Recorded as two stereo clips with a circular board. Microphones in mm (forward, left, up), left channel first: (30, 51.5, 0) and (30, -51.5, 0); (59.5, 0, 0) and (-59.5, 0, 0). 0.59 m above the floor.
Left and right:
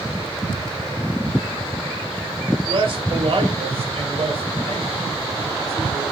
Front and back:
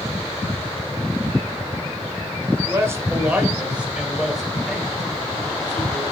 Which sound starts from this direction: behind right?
A man speaking, at 2.7 s.